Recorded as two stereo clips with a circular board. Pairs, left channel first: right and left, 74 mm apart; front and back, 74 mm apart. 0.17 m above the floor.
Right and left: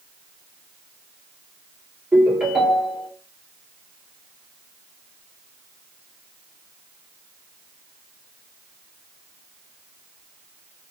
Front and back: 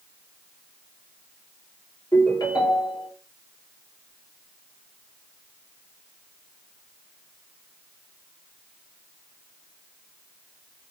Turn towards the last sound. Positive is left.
turn(degrees=15)